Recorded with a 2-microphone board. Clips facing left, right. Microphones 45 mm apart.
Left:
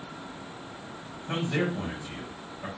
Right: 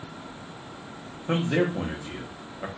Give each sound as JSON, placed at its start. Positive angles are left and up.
{"t": 1.3, "sound": "a man speaking", "side_deg": -70, "distance_m": 1.4}